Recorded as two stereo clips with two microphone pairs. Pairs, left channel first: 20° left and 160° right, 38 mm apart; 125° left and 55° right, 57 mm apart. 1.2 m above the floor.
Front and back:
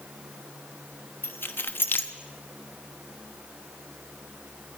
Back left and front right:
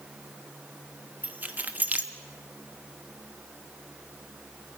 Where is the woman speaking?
I don't hear a woman speaking.